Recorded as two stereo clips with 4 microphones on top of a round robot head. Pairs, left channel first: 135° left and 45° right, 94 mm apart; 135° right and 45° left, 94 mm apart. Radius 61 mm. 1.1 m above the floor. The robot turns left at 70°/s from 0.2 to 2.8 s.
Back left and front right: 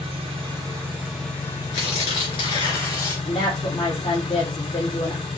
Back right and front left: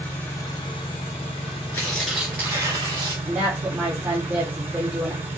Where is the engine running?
65° right, 1.9 m; by 5.4 s 110° left, 1.9 m.